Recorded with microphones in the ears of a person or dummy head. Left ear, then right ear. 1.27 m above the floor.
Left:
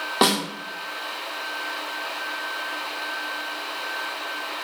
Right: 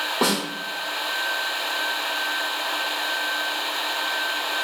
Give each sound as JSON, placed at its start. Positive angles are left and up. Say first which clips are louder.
{"t": 0.2, "sound": "a snare drum", "louder": "left 4 dB", "side_deg": 45, "distance_m": 0.9}